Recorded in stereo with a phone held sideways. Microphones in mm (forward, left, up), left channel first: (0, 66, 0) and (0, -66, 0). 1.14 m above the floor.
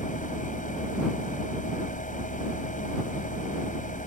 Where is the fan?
80° left.